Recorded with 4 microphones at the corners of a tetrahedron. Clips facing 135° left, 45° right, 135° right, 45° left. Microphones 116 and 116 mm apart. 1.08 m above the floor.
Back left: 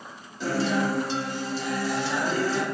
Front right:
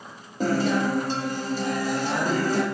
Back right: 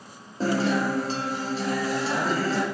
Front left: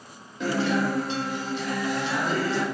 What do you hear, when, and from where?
0.4 s a guitar: 85° right, 0.7 m